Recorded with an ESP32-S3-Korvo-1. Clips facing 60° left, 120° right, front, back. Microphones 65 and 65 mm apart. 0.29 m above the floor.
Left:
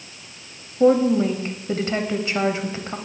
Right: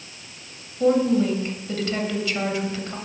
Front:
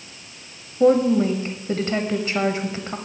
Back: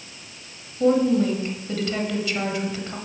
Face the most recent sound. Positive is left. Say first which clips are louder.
# left 3 dB, front 3 dB
turn(degrees=25)